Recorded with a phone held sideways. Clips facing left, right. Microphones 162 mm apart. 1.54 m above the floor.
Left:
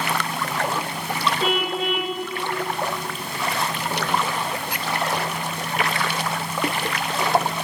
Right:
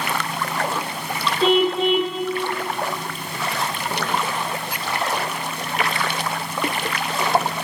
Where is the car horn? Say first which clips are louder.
Right 10 dB; 25° right (ahead or behind), 2.5 m.